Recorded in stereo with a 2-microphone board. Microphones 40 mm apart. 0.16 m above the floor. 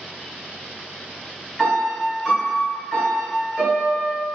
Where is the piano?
5° left (ahead or behind), 1.9 m.